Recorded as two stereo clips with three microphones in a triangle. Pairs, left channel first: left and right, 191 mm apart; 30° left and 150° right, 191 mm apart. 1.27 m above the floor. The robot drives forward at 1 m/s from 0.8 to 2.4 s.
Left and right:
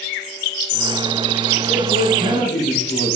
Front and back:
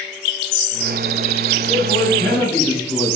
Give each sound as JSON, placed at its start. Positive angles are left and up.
{"t": 1.7, "sound": "a man speaking", "azimuth_deg": 95, "distance_m": 2.5}